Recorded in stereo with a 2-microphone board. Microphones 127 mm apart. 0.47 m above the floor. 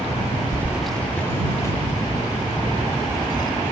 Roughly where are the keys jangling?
Right.